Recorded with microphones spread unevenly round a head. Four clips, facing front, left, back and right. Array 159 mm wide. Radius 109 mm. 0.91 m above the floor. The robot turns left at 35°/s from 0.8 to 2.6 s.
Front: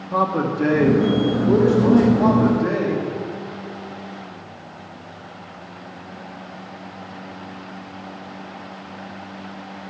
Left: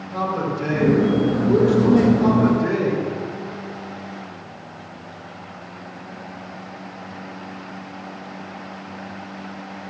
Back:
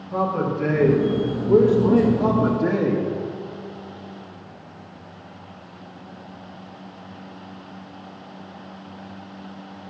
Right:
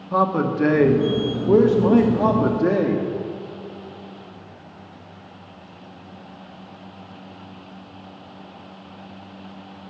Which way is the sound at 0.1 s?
45° right.